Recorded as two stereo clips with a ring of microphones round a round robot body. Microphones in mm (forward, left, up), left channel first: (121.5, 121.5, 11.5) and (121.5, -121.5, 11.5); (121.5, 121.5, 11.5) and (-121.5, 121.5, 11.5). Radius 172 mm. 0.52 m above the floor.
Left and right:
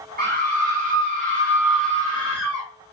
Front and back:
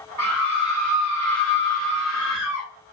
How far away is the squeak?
I don't hear a squeak.